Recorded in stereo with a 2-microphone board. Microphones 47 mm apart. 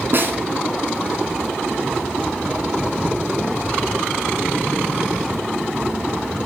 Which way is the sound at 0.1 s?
50° right (ahead or behind).